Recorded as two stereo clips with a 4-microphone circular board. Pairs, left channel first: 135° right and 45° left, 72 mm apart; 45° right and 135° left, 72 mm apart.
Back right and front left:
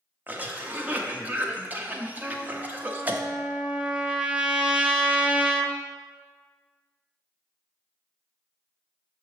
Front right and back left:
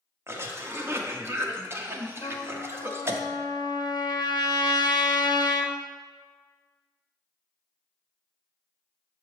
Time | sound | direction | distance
0.3 | a cough | 100° left | 0.8 m
2.2 | a trumpet | 30° right | 0.6 m